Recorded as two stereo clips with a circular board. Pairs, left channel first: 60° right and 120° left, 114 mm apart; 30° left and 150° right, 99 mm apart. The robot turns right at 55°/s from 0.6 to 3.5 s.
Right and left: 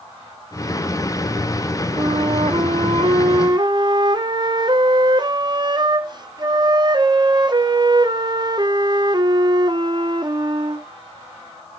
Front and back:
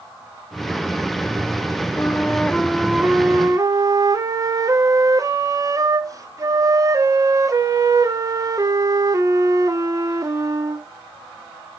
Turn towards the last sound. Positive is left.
turn(degrees=160)